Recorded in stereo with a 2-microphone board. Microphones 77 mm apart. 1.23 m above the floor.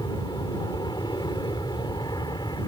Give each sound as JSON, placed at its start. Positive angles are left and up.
{"t": 0.0, "sound": "an aircraft", "side_deg": 65}